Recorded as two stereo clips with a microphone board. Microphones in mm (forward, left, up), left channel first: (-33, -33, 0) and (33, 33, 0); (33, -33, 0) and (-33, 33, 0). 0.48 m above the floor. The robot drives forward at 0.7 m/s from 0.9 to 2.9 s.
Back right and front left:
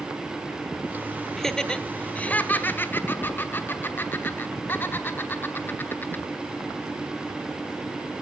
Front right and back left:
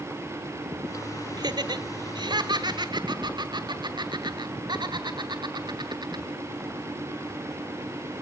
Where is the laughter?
140° left, 1.2 m; by 6.2 s 160° left, 2 m.